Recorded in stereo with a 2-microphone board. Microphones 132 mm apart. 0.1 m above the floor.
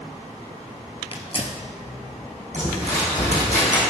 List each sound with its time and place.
1.1 s tearing paper: 45° left (ahead or behind), 0.9 m
2.5 s crumpling: 55° left (ahead or behind), 2.5 m